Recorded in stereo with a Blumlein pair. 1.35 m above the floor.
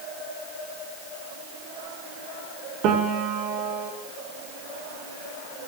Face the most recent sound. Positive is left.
turn(degrees=-40)